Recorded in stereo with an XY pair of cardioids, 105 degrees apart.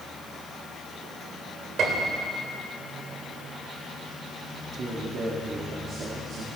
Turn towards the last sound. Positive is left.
turn(degrees=-45)